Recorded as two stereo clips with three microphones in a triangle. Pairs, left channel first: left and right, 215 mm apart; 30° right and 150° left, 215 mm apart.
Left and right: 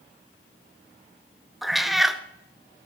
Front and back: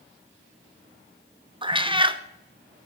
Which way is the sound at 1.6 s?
Straight behind.